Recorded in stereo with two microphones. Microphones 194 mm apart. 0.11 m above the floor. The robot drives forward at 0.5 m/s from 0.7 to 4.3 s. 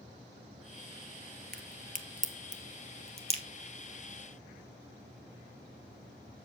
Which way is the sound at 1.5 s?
50° right (ahead or behind).